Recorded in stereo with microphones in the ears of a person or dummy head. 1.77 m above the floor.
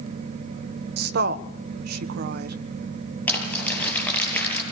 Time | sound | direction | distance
1.0 | a woman speaking | 60° right (ahead or behind) | 1.3 m
3.3 | crumpling | 15° left (ahead or behind) | 8 m